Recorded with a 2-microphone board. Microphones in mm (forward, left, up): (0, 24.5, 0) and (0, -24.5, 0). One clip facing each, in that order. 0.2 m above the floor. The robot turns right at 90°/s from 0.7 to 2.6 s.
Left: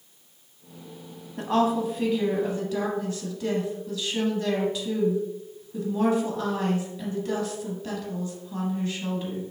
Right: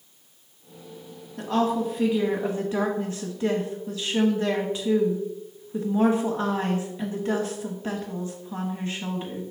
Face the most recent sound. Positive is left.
turn(degrees=-25)  # may be behind; listen again after turning